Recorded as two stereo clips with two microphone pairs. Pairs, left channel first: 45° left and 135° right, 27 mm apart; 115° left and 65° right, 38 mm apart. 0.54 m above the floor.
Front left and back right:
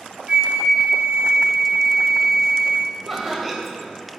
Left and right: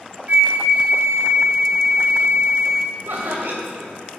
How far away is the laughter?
About 2 m.